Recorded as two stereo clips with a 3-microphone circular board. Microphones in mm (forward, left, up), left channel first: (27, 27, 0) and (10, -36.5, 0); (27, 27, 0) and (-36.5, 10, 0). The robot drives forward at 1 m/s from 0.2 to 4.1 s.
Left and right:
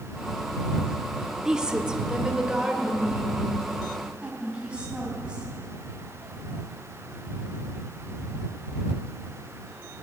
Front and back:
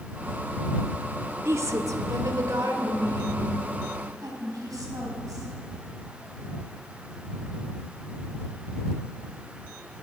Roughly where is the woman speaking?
Behind.